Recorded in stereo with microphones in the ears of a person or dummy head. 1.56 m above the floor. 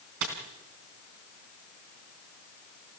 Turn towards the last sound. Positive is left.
turn(degrees=-65)  # may be behind; listen again after turning